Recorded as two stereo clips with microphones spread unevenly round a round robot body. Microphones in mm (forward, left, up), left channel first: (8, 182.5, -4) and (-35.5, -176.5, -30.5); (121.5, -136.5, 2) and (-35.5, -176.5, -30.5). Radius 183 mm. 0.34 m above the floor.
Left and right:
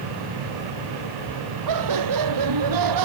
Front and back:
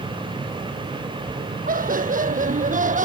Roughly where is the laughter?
Behind right.